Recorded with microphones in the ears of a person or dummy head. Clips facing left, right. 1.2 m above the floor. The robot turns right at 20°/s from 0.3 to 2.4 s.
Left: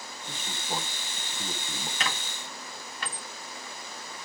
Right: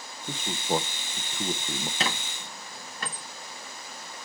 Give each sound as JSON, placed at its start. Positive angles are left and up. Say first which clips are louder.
{"t": 0.3, "sound": "a man speaking", "louder": "right 8 dB", "side_deg": -30, "distance_m": 0.6}
{"t": 2.0, "sound": "a squeak", "louder": "right 3 dB", "side_deg": -30, "distance_m": 1.0}